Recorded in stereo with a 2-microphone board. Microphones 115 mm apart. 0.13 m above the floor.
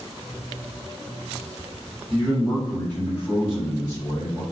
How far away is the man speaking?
About 1.6 m.